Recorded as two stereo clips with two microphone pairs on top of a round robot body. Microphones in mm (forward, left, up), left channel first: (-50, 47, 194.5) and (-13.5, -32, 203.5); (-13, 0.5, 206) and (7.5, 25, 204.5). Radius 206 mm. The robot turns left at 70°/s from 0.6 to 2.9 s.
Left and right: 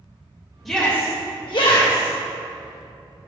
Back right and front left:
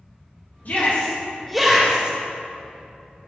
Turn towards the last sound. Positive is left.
turn(degrees=50)